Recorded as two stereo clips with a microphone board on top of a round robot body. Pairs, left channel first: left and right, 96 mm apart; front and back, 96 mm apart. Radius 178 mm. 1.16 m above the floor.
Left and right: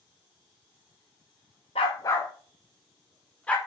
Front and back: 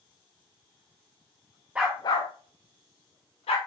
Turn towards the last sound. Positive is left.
turn(degrees=10)